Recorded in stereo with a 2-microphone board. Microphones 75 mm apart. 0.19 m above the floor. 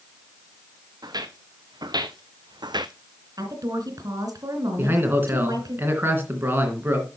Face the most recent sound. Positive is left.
turn(degrees=-30)  # may be behind; listen again after turning